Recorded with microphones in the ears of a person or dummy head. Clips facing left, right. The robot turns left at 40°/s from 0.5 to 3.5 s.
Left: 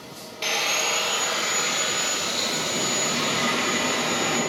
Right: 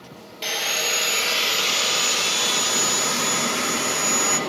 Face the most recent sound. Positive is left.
turn(degrees=-125)